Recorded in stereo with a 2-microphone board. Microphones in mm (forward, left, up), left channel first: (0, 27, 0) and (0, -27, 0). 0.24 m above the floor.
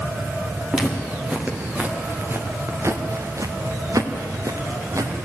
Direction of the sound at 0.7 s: 15° right (ahead or behind).